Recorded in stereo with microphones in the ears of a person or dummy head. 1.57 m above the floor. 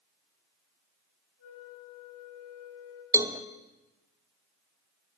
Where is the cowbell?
15° right (ahead or behind), 0.6 m.